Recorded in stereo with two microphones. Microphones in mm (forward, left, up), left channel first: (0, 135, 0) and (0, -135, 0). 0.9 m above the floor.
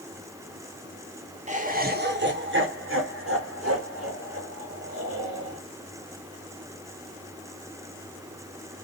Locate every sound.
1.5 s laughter: 25° right (ahead or behind), 0.9 m; by 5.6 s 60° right (ahead or behind), 2.5 m